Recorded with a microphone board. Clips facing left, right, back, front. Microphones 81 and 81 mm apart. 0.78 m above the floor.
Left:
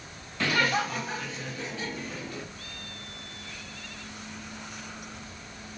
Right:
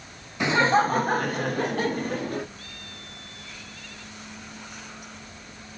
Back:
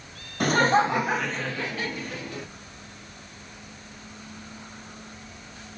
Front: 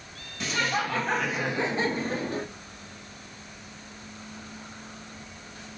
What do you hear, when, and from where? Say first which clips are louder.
0.4 s laughter: right 6 dB, back 8 dB; 160° right, 0.7 m; by 2.5 s 45° right, 1.2 m